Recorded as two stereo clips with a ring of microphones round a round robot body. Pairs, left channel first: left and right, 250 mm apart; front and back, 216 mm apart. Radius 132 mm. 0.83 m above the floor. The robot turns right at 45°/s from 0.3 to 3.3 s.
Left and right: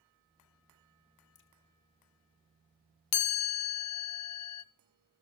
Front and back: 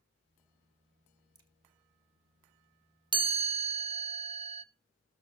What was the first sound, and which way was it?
A crack, 115° left.